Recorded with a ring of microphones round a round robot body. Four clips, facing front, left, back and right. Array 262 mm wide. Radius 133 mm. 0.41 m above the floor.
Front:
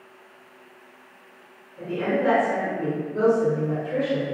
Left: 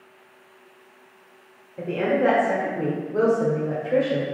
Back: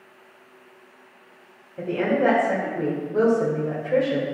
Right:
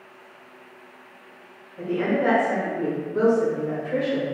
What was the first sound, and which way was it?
A woman speaking, 140° left.